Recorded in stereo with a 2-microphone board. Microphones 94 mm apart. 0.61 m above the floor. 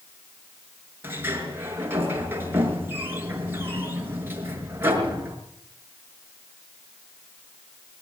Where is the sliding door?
25° right (ahead or behind), 5.5 m.